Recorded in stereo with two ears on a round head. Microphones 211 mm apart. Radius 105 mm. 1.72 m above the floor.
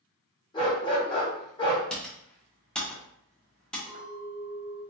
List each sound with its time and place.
0.5 s a dog barking: 20° left (ahead or behind), 1.2 m
1.9 s typing on a keyboard: 5° left (ahead or behind), 1.1 m
3.9 s a clink: 10° left (ahead or behind), 1.4 m